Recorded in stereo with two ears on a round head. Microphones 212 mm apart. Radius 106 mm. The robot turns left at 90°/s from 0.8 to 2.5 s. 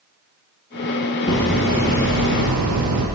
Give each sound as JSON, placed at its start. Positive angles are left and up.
{"t": 1.3, "sound": "hammering", "azimuth_deg": 20, "distance_m": 5.5}